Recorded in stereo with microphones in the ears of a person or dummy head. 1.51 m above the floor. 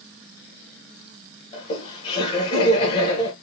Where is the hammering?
No hammering in this recording.